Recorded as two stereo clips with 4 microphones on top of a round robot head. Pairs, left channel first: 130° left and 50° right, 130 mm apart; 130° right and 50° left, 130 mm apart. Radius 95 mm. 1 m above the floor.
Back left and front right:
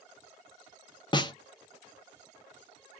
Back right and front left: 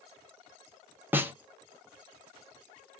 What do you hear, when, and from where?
1.1 s a snare drum: 115° left, 0.6 m